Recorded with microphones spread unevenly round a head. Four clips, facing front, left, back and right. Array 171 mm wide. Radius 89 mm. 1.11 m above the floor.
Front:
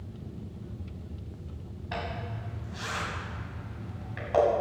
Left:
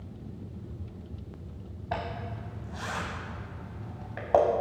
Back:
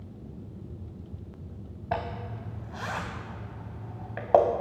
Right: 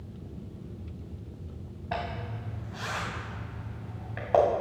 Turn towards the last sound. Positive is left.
turn(degrees=180)